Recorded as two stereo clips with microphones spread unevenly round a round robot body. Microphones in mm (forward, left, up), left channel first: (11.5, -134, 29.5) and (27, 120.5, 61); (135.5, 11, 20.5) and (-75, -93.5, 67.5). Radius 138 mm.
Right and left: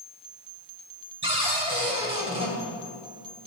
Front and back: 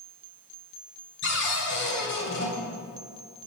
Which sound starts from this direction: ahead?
A cupboard door, at 1.2 s.